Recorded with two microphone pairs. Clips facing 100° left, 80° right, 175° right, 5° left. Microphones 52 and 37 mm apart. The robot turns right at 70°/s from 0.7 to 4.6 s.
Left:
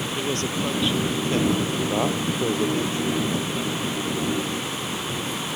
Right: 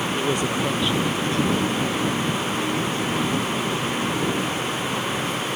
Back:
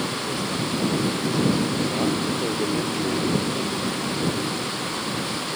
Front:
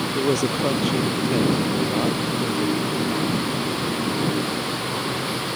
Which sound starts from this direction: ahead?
A man speaking, at 0.1 s.